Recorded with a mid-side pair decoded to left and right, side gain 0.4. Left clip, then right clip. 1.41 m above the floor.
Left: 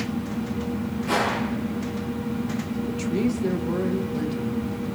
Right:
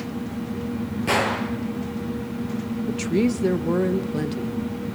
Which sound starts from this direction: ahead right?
A woman speaking, at 2.9 s.